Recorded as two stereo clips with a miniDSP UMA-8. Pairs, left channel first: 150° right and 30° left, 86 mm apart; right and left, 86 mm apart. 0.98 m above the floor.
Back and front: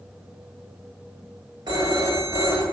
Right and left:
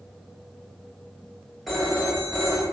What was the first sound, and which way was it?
A phone ringing, straight ahead.